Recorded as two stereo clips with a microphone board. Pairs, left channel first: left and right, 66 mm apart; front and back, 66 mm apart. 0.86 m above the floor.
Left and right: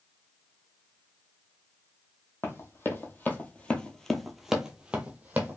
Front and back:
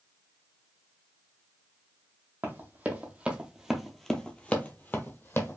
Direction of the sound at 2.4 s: 130° left.